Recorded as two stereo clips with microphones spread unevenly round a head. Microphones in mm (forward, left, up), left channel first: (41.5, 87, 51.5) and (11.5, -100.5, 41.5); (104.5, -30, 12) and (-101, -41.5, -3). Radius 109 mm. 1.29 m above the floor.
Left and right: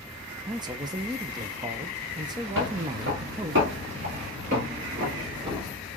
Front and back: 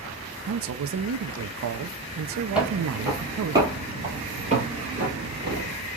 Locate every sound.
0.5 s a man speaking: 165° right, 0.6 m
2.5 s footsteps: 90° right, 2 m; by 5.8 s 170° right, 1.7 m